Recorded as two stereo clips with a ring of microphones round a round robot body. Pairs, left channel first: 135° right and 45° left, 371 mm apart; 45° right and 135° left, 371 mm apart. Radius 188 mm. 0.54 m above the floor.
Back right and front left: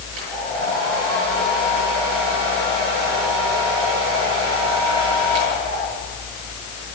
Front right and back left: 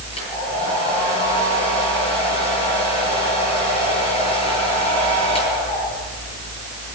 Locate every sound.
0.1 s a hair dryer: 30° left, 9.5 m